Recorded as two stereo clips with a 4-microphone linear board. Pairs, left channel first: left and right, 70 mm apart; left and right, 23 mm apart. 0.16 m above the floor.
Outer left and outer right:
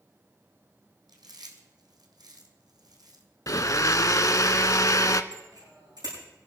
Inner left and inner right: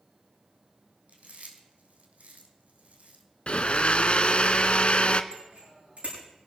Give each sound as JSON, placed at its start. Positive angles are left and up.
{"t": 1.1, "sound": "chewing", "side_deg": -70, "distance_m": 1.7}
{"t": 3.5, "sound": "a blender", "side_deg": 50, "distance_m": 0.6}
{"t": 5.3, "sound": "a bicycle bell", "side_deg": -85, "distance_m": 7.5}